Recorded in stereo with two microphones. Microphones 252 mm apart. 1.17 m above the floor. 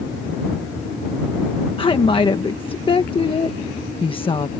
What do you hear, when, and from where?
1.8 s a woman speaking: 20° left (ahead or behind)